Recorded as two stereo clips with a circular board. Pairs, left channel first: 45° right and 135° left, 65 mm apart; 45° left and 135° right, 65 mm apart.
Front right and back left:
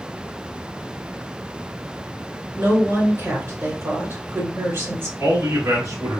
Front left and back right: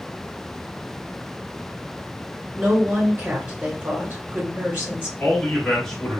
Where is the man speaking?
130° left, 1.8 m.